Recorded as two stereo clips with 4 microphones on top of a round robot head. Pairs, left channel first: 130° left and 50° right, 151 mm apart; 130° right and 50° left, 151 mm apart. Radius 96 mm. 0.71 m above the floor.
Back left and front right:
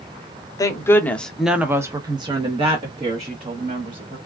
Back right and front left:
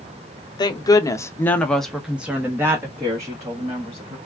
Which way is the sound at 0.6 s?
175° right.